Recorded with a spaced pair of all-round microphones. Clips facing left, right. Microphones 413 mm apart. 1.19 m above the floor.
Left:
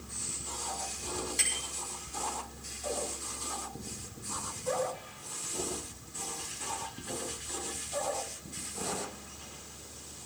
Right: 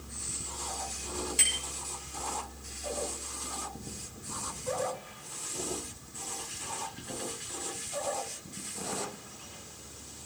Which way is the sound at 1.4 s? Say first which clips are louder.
Right 1 dB; 45° right (ahead or behind).